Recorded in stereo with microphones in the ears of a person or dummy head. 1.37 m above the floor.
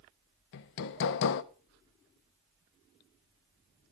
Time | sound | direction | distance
0.5 | hammering | 65° left (ahead or behind) | 0.6 m